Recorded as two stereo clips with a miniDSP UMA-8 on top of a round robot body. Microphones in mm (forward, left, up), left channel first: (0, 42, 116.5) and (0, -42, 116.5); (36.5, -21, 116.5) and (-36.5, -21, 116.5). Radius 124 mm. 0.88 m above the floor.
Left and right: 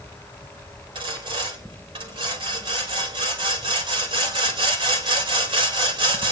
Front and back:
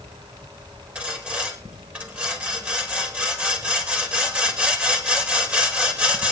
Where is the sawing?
110° right, 4 m.